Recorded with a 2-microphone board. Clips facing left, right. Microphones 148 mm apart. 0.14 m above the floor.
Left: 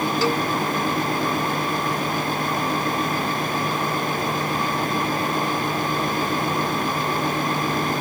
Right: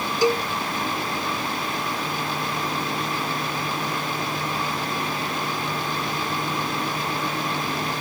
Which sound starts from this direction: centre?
A cowbell, at 0.2 s.